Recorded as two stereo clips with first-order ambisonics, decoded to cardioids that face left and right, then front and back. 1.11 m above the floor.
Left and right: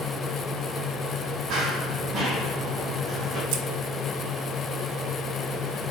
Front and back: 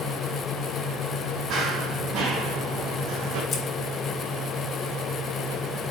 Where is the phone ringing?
I don't hear a phone ringing.